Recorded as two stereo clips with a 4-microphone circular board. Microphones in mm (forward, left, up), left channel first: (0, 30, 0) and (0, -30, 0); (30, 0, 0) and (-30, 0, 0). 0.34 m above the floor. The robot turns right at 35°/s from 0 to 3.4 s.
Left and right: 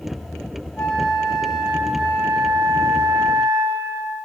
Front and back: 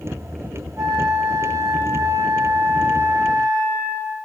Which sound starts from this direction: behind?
A flute, at 0.8 s.